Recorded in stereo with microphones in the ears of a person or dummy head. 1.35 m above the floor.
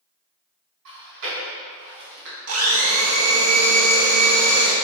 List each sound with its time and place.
0.8 s chewing: 75° right (ahead or behind), 1.7 m
2.5 s a blender: 70° right (ahead or behind), 0.7 m